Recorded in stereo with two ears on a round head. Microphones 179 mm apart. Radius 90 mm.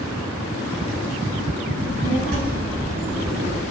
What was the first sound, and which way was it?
A child speaking, 85° right.